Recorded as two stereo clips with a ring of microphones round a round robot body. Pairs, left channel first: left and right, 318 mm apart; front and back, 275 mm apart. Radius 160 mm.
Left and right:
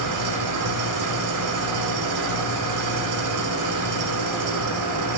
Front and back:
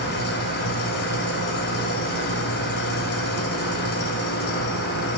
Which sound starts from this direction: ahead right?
An engine running, at 0.0 s.